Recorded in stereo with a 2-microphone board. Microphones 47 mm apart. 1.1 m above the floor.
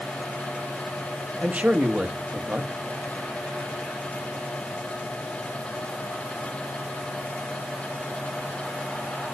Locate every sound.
1.4 s a man speaking: 30° right (ahead or behind), 1.6 m